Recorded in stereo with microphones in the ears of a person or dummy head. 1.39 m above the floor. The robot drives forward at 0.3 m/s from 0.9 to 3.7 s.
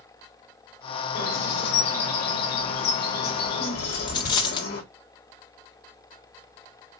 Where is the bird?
60° left (ahead or behind), 3 m; by 4.8 s 50° left (ahead or behind), 3.5 m.